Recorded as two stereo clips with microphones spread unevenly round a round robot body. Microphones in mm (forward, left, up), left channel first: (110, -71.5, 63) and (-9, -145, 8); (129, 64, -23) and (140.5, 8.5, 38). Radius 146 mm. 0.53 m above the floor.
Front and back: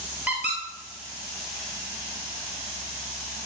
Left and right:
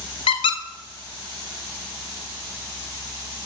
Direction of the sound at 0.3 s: 95° left.